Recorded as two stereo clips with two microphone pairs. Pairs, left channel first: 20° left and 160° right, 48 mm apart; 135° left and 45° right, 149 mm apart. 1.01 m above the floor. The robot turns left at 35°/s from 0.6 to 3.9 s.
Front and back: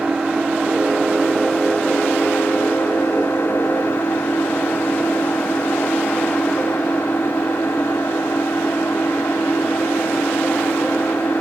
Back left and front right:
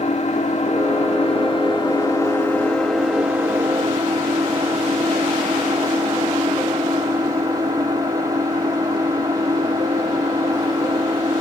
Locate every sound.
0.0 s an engine running: 130° left, 1.1 m; by 11.4 s 15° left, 1.1 m